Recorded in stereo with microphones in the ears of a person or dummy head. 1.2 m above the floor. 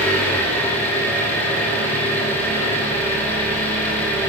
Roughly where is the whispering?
I don't hear whispering.